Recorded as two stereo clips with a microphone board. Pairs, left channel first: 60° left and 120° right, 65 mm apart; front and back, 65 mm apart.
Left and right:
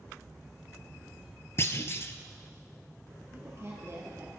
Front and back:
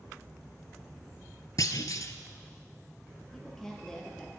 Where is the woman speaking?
80° right, 2.5 m.